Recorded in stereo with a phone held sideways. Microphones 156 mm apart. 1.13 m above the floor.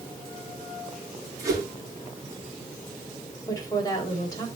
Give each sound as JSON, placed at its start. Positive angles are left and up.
{"t": 1.4, "sound": "a whoosh", "side_deg": -20, "distance_m": 7.5}
{"t": 3.5, "sound": "a woman speaking", "side_deg": 25, "distance_m": 5.0}